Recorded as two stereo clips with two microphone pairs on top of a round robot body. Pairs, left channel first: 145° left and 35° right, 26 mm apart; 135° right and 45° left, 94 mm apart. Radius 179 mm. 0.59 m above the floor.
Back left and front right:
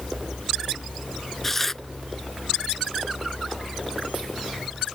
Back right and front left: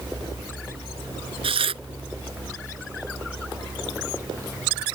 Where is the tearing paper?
65° left.